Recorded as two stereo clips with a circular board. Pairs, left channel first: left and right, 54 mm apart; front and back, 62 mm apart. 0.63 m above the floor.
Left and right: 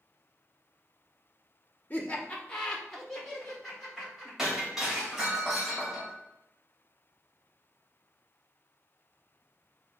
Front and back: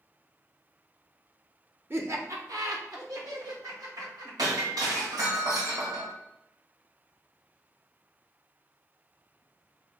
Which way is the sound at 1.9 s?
135° left.